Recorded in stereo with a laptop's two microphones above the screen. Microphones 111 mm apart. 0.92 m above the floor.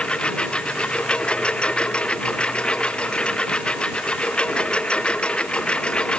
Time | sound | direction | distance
0.0 | a lawn mower | 10° left (ahead or behind) | ?